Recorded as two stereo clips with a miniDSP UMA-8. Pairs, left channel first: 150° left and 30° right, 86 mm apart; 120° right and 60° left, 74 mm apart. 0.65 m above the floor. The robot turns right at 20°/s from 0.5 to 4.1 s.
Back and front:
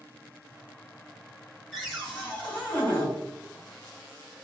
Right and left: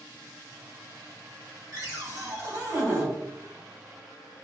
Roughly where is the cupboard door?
Ahead left.